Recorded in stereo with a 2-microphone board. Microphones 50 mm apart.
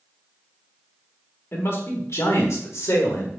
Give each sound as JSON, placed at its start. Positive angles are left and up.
{"t": 1.5, "sound": "a man speaking", "side_deg": 50, "distance_m": 1.8}